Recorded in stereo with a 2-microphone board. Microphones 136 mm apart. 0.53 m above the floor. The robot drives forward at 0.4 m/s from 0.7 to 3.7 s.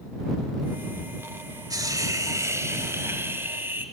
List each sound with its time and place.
1.7 s a hiss: 30° right (ahead or behind), 1.2 m; by 3.9 s 15° right (ahead or behind), 1.9 m